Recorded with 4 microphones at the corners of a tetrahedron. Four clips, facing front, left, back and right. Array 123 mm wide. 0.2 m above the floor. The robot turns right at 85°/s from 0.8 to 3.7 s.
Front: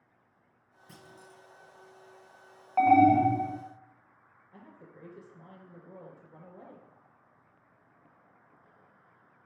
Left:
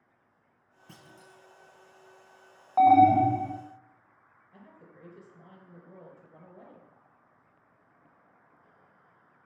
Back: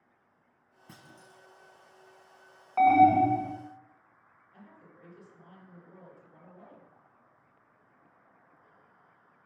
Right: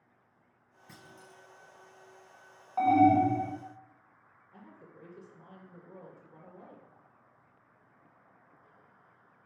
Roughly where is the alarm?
Left.